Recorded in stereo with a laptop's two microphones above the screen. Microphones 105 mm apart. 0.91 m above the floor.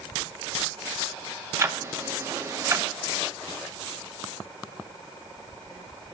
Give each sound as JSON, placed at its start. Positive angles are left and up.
{"t": 1.6, "sound": "ticking", "side_deg": -25, "distance_m": 0.8}